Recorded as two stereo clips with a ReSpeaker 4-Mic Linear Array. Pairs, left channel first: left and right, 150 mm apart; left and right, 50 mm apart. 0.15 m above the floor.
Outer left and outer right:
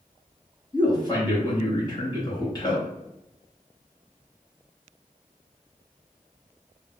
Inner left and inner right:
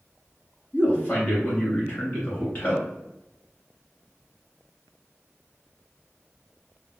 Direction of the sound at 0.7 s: 30° left (ahead or behind).